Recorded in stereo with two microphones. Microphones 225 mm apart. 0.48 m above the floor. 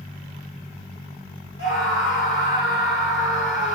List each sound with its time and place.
1.6 s a scream: 60° left (ahead or behind), 2.5 m